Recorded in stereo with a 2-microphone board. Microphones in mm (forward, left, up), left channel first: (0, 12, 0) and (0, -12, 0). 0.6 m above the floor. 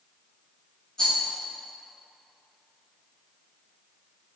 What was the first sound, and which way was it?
A rattle, 25° left (ahead or behind).